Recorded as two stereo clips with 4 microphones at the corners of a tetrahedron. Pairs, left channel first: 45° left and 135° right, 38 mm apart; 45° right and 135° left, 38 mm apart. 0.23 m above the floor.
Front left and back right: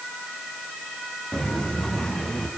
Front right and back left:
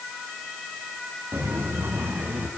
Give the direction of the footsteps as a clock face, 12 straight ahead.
8 o'clock.